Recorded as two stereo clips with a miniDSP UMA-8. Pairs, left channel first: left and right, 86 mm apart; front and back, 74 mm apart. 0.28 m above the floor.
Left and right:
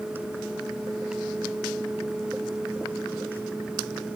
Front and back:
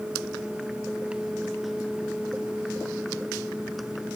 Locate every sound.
Only background noise.